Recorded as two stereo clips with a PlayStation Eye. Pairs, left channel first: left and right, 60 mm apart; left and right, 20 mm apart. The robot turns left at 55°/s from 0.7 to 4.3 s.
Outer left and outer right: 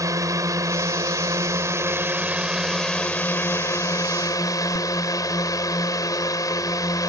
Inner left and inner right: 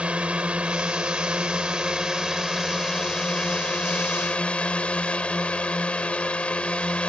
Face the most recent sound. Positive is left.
turn(degrees=90)